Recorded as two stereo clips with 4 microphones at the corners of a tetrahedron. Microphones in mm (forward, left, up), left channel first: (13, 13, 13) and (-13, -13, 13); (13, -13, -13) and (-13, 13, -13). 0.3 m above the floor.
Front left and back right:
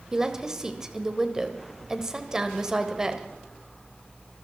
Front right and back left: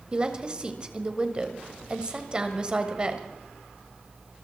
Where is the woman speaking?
165° left, 1.5 m.